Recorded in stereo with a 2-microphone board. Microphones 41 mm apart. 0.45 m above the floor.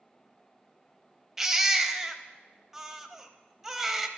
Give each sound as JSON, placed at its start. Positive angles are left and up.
{"t": 1.4, "sound": "a baby crying", "side_deg": -10, "distance_m": 0.5}